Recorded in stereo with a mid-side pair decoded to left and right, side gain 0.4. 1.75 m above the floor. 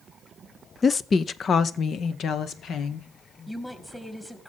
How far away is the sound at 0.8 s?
About 0.5 m.